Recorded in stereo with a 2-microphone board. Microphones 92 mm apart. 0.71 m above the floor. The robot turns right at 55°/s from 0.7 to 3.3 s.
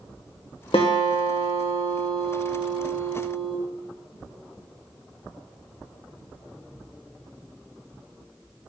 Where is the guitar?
90° left, 1.8 m; by 3.5 s 125° right, 1.8 m.